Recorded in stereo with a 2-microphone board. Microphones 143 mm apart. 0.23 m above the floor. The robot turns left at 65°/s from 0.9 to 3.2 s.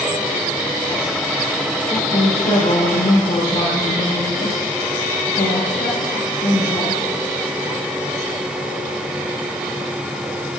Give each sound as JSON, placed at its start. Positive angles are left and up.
{"t": 1.9, "sound": "a woman speaking", "azimuth_deg": 150, "distance_m": 5.5}